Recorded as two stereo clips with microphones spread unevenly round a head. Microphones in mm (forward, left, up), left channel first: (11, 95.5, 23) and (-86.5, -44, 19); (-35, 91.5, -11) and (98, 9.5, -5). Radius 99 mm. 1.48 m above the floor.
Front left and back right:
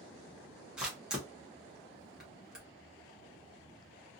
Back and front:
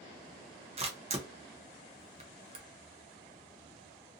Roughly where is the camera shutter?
Ahead right.